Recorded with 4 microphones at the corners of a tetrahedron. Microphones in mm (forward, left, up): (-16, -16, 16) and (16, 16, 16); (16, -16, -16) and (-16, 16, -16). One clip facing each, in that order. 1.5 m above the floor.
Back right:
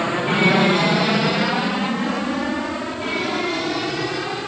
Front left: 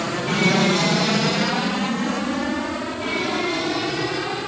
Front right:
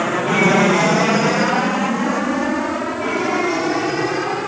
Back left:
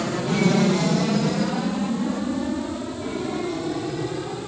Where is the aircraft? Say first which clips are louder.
Back right 3 dB, front right 6 dB; 65° right; by 4.5 s 45° right.